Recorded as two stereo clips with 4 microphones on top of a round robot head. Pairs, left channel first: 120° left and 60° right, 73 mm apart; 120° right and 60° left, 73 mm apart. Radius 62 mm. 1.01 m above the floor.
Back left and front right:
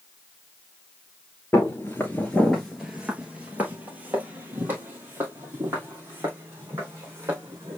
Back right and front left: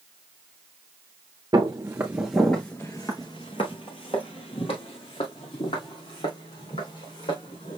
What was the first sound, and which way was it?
Footsteps, 75° left.